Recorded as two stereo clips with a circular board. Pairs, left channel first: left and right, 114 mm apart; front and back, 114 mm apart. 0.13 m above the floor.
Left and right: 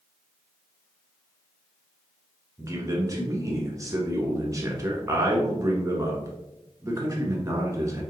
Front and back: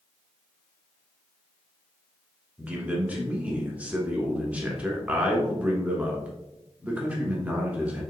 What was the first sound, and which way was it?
A man speaking, 115° right.